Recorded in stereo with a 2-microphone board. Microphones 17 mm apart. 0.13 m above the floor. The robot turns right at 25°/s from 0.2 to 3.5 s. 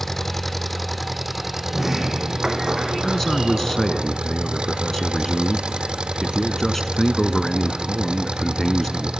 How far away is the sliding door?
About 3 m.